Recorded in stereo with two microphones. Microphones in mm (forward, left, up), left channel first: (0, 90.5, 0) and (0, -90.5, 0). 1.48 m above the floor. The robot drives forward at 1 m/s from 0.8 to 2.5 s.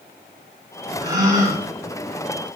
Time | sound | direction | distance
1.0 | a gasp | 20° right (ahead or behind) | 4 m